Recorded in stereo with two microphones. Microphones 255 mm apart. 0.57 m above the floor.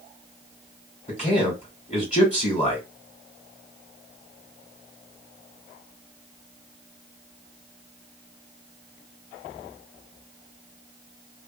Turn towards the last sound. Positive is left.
turn(degrees=30)  # may be behind; listen again after turning